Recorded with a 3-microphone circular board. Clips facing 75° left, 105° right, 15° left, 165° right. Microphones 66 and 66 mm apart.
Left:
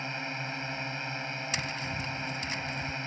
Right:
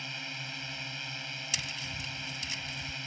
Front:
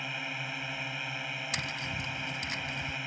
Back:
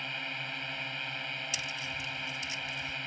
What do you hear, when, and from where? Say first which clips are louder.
0.0 s a drone: left 6 dB, front 1 dB; 95° left
1.5 s tapping: left 4 dB, front 2 dB; 35° left